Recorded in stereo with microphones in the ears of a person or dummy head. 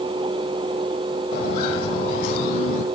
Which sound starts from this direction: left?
Footsteps, at 1.3 s.